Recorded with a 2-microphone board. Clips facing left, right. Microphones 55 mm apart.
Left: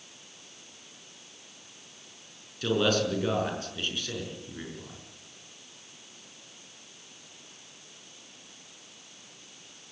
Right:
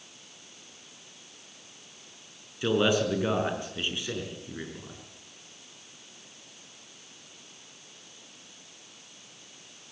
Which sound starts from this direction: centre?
A man speaking, at 2.6 s.